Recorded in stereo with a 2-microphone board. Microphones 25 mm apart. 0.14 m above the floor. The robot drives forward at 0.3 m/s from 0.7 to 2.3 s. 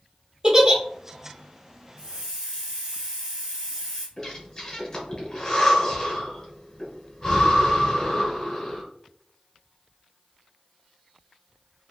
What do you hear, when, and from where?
0.4 s a giggle: 25° right (ahead or behind), 1.2 m
2.0 s a hiss: 40° right (ahead or behind), 1.6 m
4.2 s breathing: 15° left (ahead or behind), 1.5 m